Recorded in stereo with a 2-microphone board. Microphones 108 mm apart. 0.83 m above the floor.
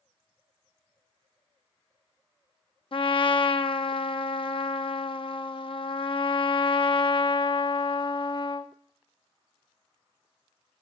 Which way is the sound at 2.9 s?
55° left (ahead or behind).